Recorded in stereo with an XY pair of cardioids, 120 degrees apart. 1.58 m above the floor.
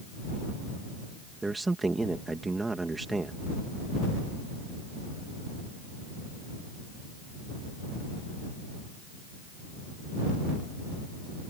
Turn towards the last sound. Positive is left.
turn(degrees=-15)